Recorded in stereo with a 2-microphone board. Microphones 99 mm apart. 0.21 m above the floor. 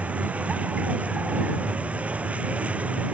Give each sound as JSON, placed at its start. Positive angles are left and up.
{"t": 0.0, "sound": "a vehicle", "side_deg": -15}